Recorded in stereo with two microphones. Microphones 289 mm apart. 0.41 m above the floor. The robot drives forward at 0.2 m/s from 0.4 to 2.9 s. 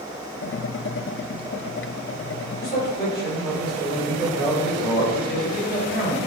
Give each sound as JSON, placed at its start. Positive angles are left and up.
{"t": 2.6, "sound": "a man speaking", "side_deg": 30, "distance_m": 1.1}